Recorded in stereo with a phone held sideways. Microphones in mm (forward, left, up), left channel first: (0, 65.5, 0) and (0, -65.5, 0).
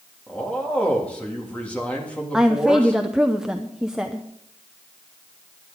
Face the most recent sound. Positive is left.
turn(degrees=-5)  # may be behind; listen again after turning